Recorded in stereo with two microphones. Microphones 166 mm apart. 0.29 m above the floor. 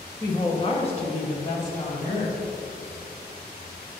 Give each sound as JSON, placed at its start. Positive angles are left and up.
{"t": 0.2, "sound": "a woman speaking", "side_deg": 20, "distance_m": 1.0}